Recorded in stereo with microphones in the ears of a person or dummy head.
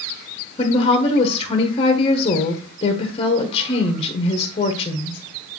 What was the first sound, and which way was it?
A woman speaking, 30° left (ahead or behind).